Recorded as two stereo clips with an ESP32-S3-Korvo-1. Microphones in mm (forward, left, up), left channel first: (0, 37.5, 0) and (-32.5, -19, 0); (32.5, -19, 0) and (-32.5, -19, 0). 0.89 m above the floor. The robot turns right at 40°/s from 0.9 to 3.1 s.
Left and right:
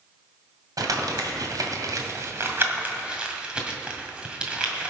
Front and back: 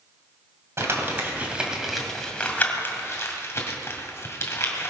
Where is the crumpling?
135° right, 2.0 m; by 4.9 s 45° right, 2.0 m.